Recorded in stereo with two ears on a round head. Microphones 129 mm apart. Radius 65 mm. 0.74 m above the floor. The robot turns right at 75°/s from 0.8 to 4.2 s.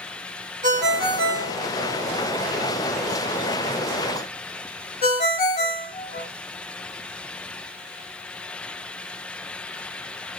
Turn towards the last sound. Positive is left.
turn(degrees=45)  # may be behind; listen again after turning